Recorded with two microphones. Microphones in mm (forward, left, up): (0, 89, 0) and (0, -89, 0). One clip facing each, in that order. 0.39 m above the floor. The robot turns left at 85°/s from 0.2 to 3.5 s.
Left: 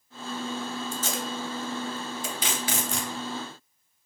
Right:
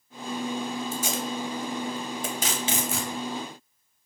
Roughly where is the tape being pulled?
Centre.